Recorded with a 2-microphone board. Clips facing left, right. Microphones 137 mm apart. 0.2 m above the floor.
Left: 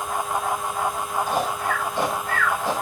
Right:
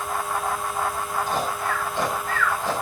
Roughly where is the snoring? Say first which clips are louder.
Left 2 dB; centre.